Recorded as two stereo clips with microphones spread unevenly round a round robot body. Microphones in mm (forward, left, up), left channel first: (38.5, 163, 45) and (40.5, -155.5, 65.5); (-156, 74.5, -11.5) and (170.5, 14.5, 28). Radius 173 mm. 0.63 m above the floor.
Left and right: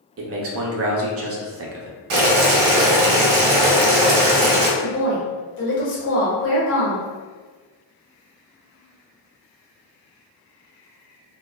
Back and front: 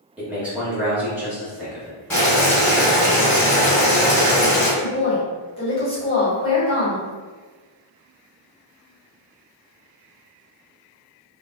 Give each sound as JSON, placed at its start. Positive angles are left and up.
{"t": 0.2, "sound": "a man speaking", "azimuth_deg": -105, "distance_m": 0.6}
{"t": 2.1, "sound": "boiling", "azimuth_deg": -105, "distance_m": 0.7}
{"t": 4.8, "sound": "a woman speaking", "azimuth_deg": 110, "distance_m": 1.2}